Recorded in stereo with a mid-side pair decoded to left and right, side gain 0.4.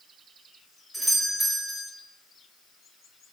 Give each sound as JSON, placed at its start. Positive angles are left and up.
{"t": 0.9, "sound": "a doorbell", "azimuth_deg": -10, "distance_m": 3.5}